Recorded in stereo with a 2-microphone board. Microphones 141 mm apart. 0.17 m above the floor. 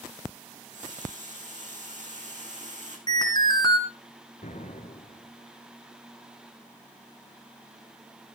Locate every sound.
0.5 s a running tap: 60° right (ahead or behind), 6 m
3.1 s an alarm: 30° left (ahead or behind), 2.5 m
4.4 s an explosion: 60° left (ahead or behind), 2 m